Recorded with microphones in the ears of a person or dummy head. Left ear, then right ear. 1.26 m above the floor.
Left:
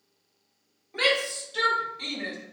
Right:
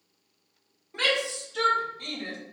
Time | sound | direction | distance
0.9 | a shout | 20° left (ahead or behind) | 2.0 m